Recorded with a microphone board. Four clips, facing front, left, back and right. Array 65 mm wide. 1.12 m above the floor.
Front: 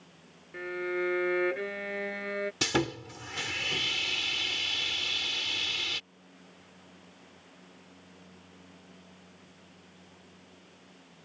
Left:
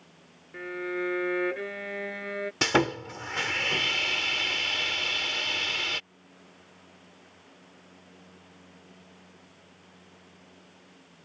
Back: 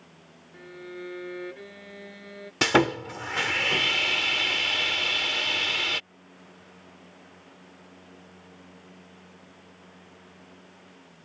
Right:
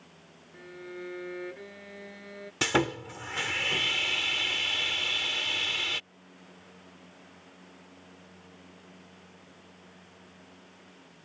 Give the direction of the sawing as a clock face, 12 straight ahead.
7 o'clock.